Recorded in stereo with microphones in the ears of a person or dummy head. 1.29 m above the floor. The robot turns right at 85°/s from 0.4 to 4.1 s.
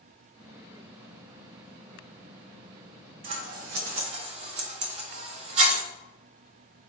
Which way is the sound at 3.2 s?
35° right (ahead or behind).